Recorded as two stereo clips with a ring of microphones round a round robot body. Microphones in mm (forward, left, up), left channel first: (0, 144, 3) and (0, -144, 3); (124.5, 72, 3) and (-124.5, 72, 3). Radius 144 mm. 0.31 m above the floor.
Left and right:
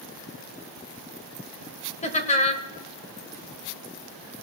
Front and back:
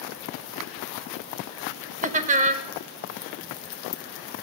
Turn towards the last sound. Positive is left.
turn(degrees=140)